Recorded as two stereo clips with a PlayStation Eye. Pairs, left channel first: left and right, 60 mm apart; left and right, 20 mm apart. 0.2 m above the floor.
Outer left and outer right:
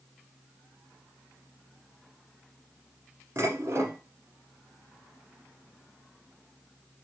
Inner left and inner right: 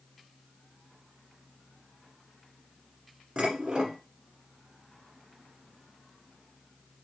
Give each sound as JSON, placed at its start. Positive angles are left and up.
{"t": 3.4, "sound": "dishes clattering", "side_deg": -55, "distance_m": 1.4}